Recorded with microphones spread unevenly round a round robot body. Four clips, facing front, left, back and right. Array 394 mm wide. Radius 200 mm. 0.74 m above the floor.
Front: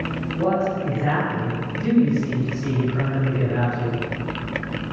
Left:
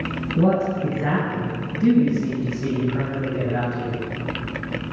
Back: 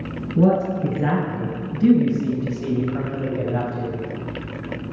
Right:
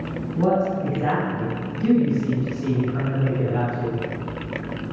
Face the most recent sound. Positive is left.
turn(degrees=150)